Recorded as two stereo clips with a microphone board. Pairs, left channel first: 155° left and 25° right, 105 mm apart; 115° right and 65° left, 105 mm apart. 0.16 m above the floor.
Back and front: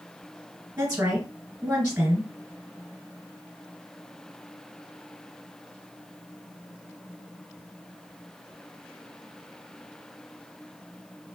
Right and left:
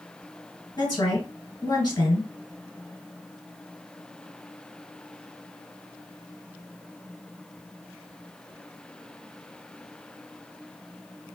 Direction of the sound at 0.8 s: 95° right.